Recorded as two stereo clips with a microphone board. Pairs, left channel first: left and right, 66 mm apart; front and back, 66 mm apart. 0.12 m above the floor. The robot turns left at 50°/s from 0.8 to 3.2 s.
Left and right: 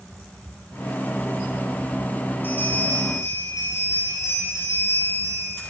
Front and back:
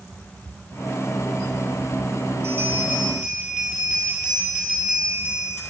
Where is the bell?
145° left, 3.5 m; by 5.6 s 105° left, 3.5 m.